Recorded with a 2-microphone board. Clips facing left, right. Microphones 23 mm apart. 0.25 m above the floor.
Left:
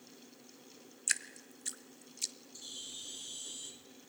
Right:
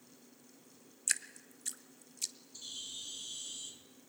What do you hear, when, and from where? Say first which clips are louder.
1.1 s dripping: left 1 dB; 10° left (ahead or behind), 0.8 m
2.5 s a bird: right 1 dB; 10° right (ahead or behind), 1.5 m